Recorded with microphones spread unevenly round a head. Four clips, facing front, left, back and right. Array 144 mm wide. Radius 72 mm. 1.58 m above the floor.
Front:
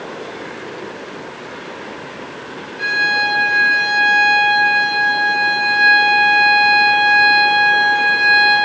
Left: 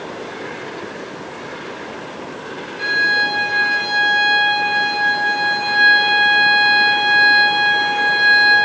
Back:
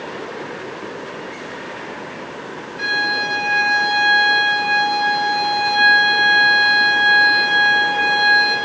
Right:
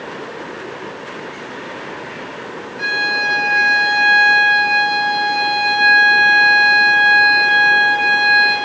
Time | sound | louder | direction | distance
2.8 | a violin | left 2 dB, front 3 dB | 175° left | 6 m